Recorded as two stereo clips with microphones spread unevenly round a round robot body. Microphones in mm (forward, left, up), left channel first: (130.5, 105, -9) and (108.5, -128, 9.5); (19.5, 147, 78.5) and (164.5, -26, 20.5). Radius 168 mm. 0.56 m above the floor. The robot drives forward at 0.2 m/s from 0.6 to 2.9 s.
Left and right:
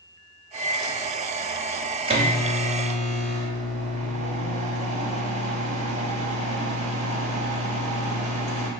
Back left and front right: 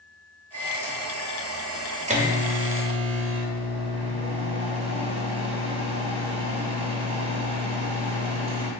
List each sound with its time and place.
0.5 s a microwave: 20° right, 1.0 m; by 8.7 s 45° right, 0.7 m